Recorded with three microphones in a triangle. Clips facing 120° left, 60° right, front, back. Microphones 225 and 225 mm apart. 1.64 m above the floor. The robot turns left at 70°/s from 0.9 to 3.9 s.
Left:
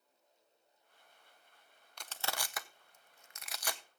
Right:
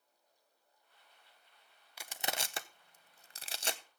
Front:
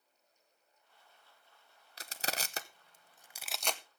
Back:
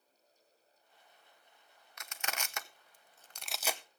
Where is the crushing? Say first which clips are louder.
Right 1 dB, front 3 dB; 20° left, 0.7 m; by 3.8 s 110° right, 0.7 m.